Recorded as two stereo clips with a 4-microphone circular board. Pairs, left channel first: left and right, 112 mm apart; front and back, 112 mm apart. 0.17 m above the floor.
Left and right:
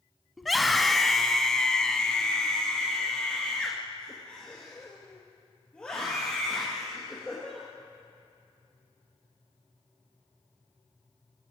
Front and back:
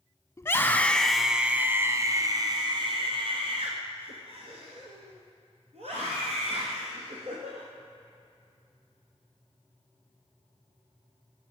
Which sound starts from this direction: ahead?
A scream, at 0.4 s.